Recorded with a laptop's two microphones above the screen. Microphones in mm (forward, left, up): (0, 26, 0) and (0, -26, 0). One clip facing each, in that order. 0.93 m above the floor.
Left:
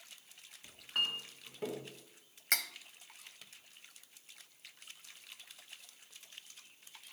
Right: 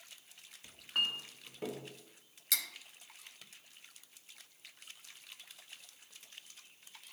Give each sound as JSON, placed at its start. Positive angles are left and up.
{"t": 0.6, "sound": "a clink", "side_deg": 0, "distance_m": 0.8}
{"t": 2.5, "sound": "cutlery clinking", "side_deg": 50, "distance_m": 0.7}